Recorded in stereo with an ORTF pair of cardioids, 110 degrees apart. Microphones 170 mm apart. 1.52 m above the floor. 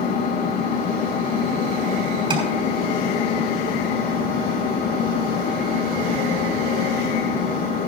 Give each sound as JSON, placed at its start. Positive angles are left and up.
{"t": 0.0, "sound": "an engine running", "azimuth_deg": 50, "distance_m": 1.6}
{"t": 2.3, "sound": "tapping", "azimuth_deg": -30, "distance_m": 6.0}